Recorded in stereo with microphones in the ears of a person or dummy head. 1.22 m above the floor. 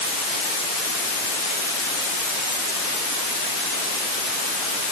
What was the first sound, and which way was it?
Only background noise.